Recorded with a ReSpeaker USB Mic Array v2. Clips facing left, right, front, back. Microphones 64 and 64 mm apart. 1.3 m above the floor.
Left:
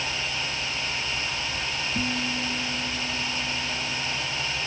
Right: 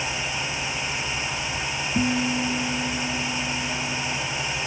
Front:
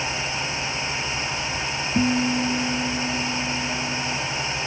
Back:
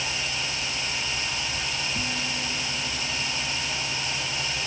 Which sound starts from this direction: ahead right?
A guitar, at 1.9 s.